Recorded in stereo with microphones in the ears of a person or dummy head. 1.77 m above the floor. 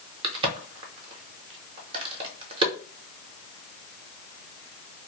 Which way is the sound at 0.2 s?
30° right (ahead or behind).